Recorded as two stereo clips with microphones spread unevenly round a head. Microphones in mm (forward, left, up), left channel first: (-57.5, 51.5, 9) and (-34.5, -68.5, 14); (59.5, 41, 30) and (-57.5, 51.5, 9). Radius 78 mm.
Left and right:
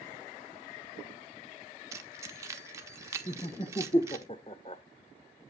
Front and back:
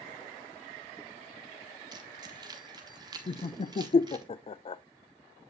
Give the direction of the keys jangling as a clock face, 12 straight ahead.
4 o'clock.